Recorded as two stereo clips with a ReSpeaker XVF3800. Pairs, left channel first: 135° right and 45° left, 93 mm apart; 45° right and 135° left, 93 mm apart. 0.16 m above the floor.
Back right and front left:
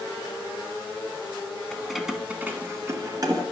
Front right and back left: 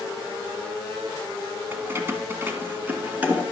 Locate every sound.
1.7 s keys jangling: 150° left, 1.1 m; by 3.4 s 65° left, 1.6 m